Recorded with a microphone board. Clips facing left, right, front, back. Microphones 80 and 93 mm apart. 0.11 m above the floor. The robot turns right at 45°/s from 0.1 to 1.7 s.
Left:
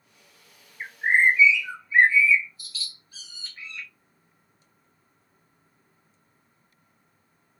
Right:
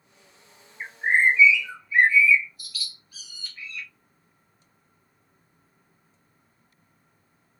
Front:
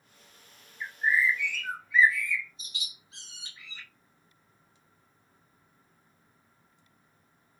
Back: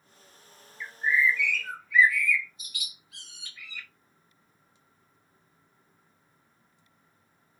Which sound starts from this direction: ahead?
A bird, at 0.8 s.